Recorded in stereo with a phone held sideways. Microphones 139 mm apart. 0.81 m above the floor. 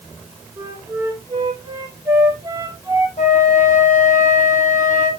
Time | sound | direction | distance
0.6 | a flute | 25° right (ahead or behind) | 4 m
3.2 | a flute | 65° left (ahead or behind) | 5 m